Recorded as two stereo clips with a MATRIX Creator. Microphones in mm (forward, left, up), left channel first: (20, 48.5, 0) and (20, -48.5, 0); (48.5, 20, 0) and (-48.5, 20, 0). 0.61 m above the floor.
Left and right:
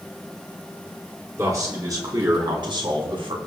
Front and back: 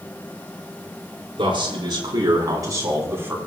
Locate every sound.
1.4 s a man speaking: 150° right, 5.5 m; by 3.4 s 115° right, 4 m